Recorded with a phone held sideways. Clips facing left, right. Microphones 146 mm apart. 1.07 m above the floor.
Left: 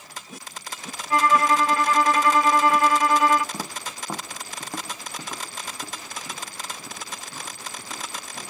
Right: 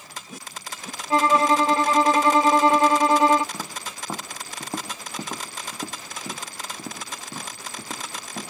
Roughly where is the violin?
Right.